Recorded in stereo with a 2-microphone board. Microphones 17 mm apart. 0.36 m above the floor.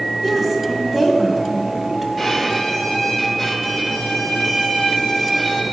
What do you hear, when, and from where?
0.2 s a woman speaking: 15° right (ahead or behind), 2.5 m
2.2 s a violin: centre (ahead or behind), 2 m